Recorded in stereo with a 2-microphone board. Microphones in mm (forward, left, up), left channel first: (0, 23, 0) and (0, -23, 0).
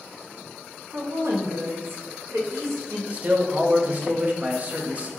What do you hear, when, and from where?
0.9 s a woman speaking: 85° right, 1.0 m
3.1 s a man speaking: 30° right (ahead or behind), 0.6 m